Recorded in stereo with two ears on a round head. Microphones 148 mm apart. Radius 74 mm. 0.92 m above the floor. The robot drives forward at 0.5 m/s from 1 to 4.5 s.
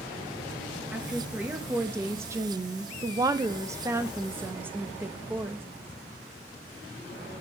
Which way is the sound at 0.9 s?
10° right (ahead or behind).